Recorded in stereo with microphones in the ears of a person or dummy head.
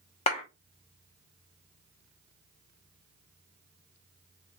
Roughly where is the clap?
Left.